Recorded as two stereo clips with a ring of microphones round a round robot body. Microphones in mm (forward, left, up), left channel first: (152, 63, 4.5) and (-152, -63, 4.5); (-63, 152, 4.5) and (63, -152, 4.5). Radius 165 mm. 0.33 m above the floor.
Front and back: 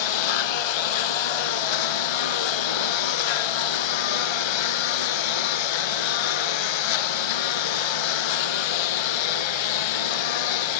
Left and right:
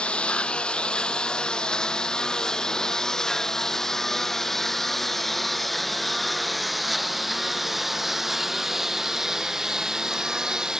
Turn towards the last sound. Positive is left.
turn(degrees=20)